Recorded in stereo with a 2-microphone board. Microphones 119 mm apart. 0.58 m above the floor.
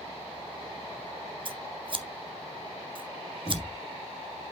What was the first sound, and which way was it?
Scissors, 45° right (ahead or behind).